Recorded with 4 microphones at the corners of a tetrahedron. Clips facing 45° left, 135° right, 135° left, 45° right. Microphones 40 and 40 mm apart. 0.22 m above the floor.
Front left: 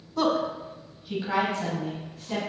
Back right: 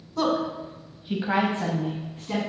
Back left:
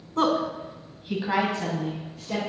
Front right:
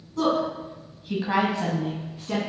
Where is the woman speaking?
125° left, 1.5 m; by 2.4 s 90° right, 1.9 m.